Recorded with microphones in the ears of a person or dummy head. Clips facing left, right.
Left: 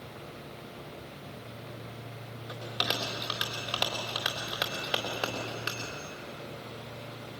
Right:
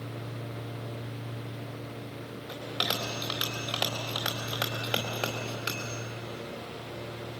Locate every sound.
2.5 s a bell: 5° left (ahead or behind), 3.5 m